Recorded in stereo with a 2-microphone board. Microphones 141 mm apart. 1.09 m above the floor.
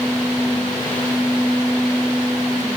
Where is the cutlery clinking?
I don't hear cutlery clinking.